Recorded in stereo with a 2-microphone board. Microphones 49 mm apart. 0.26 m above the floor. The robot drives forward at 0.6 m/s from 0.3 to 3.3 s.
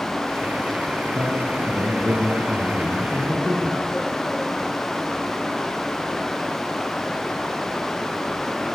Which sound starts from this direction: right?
A man speaking, at 1.1 s.